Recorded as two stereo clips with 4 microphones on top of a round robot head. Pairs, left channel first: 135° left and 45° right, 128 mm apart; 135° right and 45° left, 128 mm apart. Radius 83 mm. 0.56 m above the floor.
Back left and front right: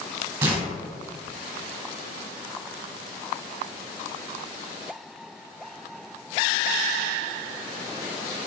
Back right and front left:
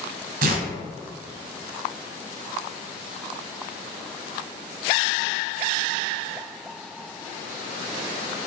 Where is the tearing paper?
30° left, 0.7 m.